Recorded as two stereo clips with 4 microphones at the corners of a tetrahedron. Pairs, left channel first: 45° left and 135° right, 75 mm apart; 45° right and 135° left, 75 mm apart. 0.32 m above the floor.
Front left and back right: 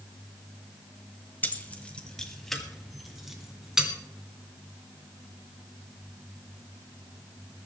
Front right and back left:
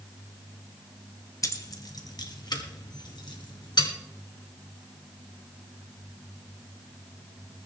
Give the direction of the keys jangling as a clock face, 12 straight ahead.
1 o'clock.